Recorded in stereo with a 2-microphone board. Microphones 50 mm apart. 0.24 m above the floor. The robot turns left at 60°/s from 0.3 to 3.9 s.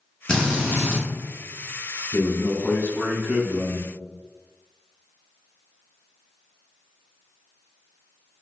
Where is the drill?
170° left, 1.9 m; by 1.0 s 125° left, 1.9 m.